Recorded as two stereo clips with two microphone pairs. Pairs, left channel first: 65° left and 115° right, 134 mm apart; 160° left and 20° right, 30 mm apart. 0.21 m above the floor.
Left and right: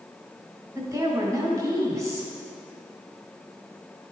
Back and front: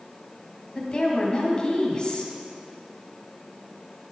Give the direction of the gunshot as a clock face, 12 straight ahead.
I don't hear a gunshot.